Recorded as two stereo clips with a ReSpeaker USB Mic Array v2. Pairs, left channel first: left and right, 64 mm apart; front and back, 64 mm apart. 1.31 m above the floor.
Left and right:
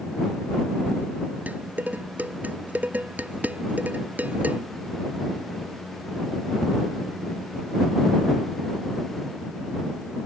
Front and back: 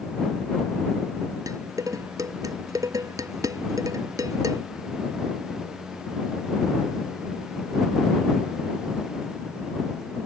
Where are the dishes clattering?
155° right.